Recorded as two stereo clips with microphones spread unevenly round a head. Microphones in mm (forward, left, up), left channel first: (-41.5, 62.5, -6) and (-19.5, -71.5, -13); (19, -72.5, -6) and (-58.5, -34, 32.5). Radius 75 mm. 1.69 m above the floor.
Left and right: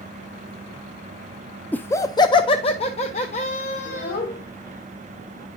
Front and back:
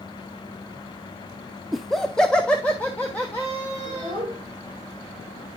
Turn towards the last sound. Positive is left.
turn(degrees=105)